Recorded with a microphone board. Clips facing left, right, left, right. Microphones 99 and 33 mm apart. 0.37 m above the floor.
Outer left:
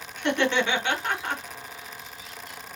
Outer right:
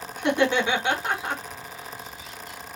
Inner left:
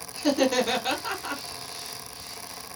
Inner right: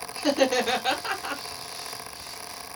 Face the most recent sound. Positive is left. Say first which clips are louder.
# outer right 2 dB, even
turn(degrees=-15)  # may be behind; listen again after turning